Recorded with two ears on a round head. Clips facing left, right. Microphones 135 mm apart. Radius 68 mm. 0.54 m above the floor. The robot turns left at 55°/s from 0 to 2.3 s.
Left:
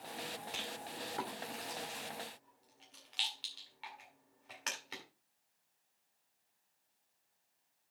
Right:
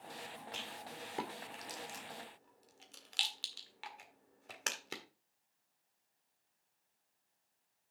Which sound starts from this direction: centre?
A rattle, at 0.5 s.